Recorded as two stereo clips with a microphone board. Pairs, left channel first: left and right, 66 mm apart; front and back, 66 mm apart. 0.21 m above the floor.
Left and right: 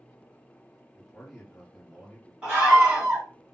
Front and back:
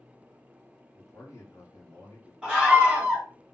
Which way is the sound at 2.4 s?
135° right.